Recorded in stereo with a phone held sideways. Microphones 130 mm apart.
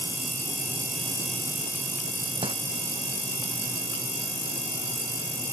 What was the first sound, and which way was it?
Crumpling, 45° right (ahead or behind).